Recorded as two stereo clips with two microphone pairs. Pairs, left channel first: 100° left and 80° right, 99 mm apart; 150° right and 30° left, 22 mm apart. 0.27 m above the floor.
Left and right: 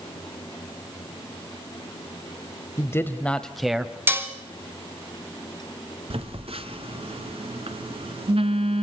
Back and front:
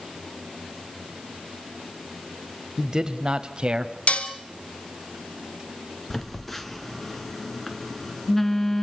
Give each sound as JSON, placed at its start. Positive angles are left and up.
{"t": 2.8, "sound": "a man speaking", "azimuth_deg": 85, "distance_m": 1.0}
{"t": 4.1, "sound": "dishes clattering", "azimuth_deg": -145, "distance_m": 1.6}
{"t": 6.1, "sound": "a phone buzzing", "azimuth_deg": -70, "distance_m": 1.4}